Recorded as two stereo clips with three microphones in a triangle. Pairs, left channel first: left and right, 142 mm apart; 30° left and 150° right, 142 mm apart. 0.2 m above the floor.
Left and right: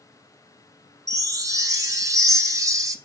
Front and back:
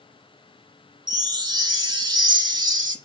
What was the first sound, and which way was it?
A chime, 130° right.